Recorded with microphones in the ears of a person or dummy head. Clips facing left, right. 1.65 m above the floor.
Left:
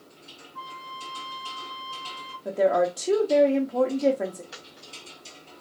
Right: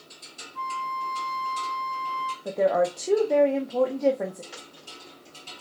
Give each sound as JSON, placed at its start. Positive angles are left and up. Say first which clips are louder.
{"t": 0.6, "sound": "a flute", "louder": "right 9 dB", "side_deg": -35, "distance_m": 3.5}
{"t": 2.5, "sound": "a woman speaking", "louder": "left 1 dB", "side_deg": 5, "distance_m": 0.6}
{"t": 4.5, "sound": "a dropped coin", "louder": "right 1 dB", "side_deg": -5, "distance_m": 2.5}